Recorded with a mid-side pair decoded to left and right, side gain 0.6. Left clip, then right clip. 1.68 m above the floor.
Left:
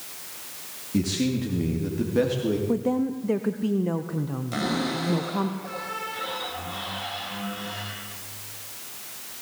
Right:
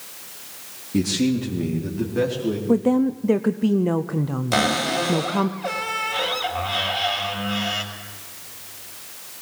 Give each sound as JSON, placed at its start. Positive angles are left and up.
{"t": 0.9, "sound": "a man speaking", "azimuth_deg": -10, "distance_m": 3.5}
{"t": 2.7, "sound": "a woman speaking", "azimuth_deg": -30, "distance_m": 0.8}
{"t": 4.5, "sound": "a cupboard door", "azimuth_deg": -55, "distance_m": 5.0}